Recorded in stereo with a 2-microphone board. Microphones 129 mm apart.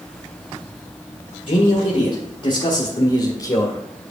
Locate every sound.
1.5 s a man speaking: 60° left (ahead or behind), 1.9 m; by 3.8 s 25° left (ahead or behind), 1.8 m